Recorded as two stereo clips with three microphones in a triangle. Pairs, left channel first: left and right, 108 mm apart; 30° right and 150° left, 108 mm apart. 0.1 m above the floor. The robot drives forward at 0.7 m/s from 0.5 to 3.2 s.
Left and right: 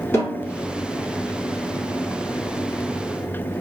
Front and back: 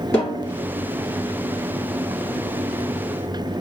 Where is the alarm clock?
No alarm clock in this recording.